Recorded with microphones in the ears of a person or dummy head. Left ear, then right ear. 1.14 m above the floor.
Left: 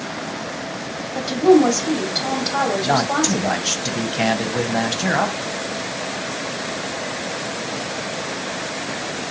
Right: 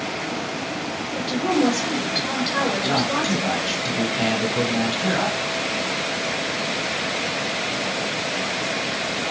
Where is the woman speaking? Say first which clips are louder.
Left 8 dB; 30° left (ahead or behind), 1.4 m.